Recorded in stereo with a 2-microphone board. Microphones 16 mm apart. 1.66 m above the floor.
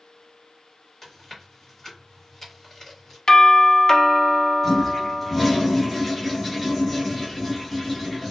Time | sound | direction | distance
1.0 | chewing | 25° left (ahead or behind) | 1.4 m
3.3 | a doorbell | 50° left (ahead or behind) | 0.7 m
4.6 | a toilet flushing | centre (ahead or behind) | 1.3 m